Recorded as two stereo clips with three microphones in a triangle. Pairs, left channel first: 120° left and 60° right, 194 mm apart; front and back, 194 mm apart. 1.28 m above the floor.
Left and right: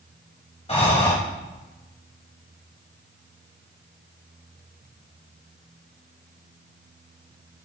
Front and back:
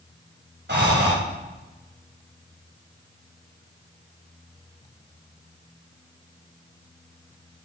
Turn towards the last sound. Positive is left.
turn(degrees=175)